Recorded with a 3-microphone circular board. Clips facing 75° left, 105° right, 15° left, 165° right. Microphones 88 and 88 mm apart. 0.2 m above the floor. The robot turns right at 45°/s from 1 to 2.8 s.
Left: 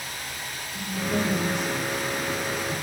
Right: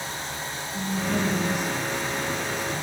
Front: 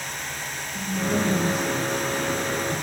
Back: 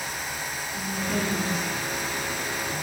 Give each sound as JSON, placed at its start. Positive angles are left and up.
{"t": 0.7, "sound": "a woman speaking", "azimuth_deg": -60, "distance_m": 1.4}